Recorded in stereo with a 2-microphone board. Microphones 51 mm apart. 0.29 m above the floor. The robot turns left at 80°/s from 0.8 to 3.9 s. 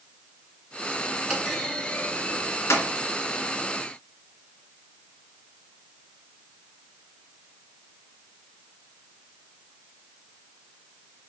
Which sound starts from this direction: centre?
A clunk, at 1.3 s.